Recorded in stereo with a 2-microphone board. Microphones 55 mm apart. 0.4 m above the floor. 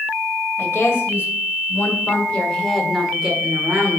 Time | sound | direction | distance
0.6 | a woman speaking | 55° left (ahead or behind) | 2 m